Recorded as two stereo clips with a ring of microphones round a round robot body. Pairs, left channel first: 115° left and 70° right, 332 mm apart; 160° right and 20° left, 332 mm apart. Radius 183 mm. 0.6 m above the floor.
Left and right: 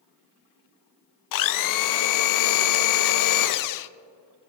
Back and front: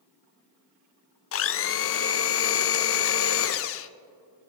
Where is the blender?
150° left, 0.6 m.